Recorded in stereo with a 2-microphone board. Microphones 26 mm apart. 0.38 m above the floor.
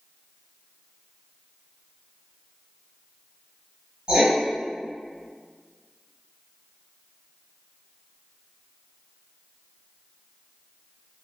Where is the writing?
35° right (ahead or behind), 1.9 m.